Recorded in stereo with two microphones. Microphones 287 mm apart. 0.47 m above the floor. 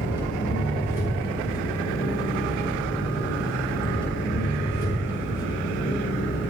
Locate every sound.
0.0 s an engine running: 40° left (ahead or behind), 4 m